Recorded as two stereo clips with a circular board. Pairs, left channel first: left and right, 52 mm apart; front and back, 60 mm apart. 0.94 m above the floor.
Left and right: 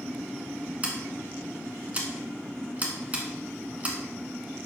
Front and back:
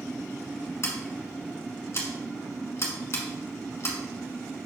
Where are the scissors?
35° right, 1.5 m.